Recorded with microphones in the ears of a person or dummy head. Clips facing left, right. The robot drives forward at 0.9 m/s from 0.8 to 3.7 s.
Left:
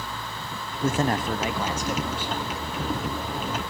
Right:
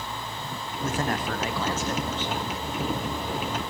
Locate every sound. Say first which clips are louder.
0.8 s a man speaking: left 4 dB; 30° left (ahead or behind), 0.6 m; by 2.5 s 10° left (ahead or behind), 1.6 m